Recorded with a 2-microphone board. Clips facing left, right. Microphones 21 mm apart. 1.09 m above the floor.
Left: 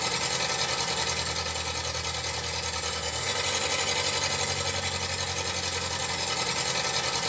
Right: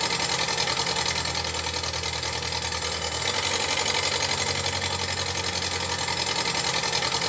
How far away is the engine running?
About 1.8 m.